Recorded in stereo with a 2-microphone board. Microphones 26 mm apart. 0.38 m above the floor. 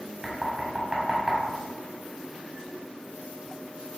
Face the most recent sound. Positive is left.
turn(degrees=-20)  # may be behind; listen again after turning